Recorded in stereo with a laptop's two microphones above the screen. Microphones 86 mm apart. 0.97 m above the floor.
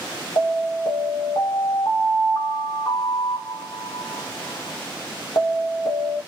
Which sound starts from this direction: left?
An alarm, at 0.4 s.